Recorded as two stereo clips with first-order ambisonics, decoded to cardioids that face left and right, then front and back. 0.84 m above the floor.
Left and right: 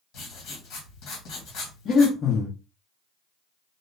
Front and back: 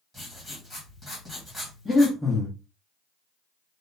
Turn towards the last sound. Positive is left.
turn(degrees=80)